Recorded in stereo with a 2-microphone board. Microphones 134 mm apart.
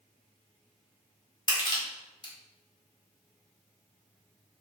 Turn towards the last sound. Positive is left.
turn(degrees=35)  # may be behind; listen again after turning